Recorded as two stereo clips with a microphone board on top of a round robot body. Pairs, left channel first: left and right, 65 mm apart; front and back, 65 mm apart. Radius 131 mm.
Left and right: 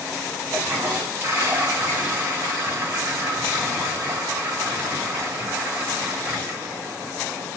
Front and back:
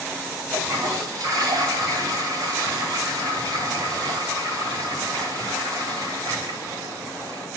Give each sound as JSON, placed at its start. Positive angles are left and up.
{"t": 0.5, "sound": "a toilet flushing", "azimuth_deg": -155, "distance_m": 2.5}